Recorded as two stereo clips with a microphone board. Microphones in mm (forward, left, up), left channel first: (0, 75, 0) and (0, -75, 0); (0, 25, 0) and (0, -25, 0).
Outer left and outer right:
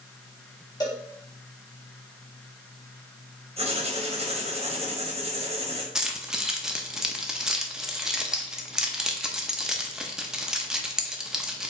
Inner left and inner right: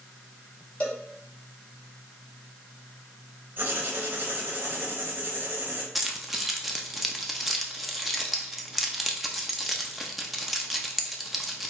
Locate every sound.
0.8 s a cowbell: 25° left (ahead or behind), 2.0 m
3.6 s writing: 40° right (ahead or behind), 1.2 m
6.0 s keys jangling: 5° right (ahead or behind), 0.6 m